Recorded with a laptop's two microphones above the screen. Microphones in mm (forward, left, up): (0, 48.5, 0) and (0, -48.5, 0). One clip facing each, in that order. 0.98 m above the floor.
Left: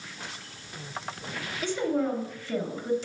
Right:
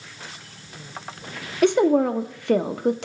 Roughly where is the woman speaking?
Right.